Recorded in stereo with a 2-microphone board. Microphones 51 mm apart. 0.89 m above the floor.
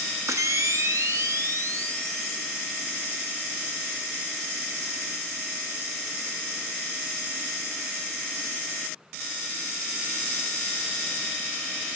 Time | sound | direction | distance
0.3 | a camera shutter | 75° right (ahead or behind) | 0.6 m